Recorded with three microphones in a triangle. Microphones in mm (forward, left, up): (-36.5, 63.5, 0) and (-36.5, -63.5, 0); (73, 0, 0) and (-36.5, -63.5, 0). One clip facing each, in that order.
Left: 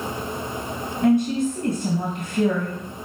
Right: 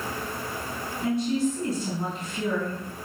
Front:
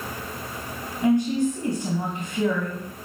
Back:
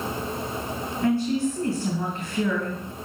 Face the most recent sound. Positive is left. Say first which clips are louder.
# left 6 dB, front 3 dB
turn(degrees=100)